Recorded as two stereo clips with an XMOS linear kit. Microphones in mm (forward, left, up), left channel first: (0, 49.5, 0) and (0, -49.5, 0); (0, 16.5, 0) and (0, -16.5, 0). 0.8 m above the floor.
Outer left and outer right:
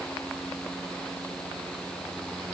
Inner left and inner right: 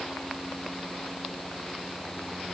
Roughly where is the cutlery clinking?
I don't hear cutlery clinking.